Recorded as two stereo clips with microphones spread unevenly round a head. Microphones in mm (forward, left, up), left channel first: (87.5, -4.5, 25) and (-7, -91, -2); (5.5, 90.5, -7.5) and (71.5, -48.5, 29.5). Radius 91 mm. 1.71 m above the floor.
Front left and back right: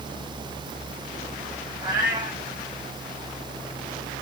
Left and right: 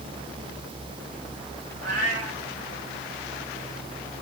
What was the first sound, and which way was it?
A cat meowing, 75° right.